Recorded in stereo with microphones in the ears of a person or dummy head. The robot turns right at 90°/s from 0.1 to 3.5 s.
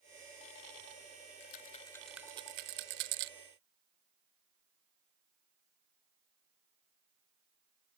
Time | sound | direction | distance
1.4 | a rattle | 50° left (ahead or behind) | ?